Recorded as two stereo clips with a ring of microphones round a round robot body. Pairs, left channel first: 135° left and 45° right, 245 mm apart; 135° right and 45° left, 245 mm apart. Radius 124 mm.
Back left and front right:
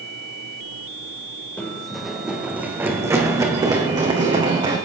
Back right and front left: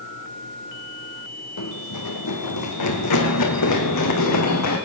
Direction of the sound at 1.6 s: 140° right.